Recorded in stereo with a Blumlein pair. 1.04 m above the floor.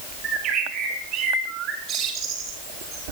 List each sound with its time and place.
0.2 s a bird: 35° right, 3 m